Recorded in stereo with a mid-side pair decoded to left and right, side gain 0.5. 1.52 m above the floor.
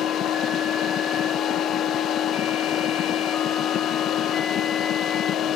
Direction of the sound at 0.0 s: 60° left.